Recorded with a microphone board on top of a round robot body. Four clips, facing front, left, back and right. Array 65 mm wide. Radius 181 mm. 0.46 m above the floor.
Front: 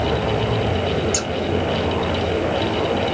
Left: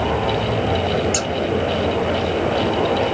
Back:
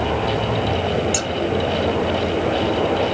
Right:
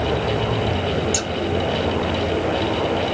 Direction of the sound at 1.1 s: 95° left.